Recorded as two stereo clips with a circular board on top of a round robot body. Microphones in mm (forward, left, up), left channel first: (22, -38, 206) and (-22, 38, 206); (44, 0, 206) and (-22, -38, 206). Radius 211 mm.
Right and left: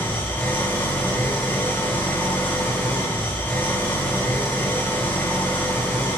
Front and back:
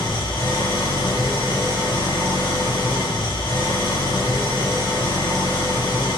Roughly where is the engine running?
Ahead.